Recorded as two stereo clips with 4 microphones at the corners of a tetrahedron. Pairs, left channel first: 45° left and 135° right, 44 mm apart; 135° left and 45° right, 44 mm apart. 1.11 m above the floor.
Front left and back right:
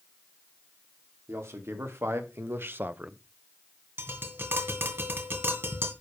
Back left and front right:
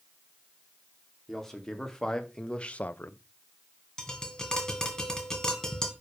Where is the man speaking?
140° right, 3 m; by 3.2 s 155° left, 0.6 m.